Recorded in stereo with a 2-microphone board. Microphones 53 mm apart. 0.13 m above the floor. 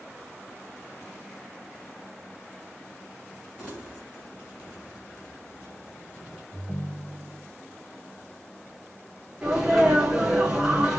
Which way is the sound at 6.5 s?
15° left (ahead or behind).